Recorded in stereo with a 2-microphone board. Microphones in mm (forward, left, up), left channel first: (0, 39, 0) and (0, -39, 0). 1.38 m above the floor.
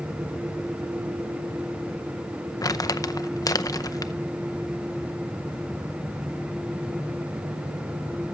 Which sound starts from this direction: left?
Crumpling, at 2.6 s.